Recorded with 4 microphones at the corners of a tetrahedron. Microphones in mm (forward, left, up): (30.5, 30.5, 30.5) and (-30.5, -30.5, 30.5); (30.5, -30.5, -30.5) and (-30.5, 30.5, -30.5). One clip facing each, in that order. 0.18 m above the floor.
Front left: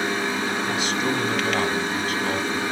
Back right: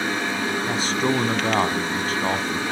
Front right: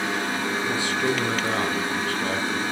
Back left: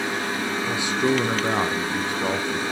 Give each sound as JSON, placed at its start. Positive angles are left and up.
{"t": 0.7, "sound": "a man speaking", "azimuth_deg": -165, "distance_m": 1.3}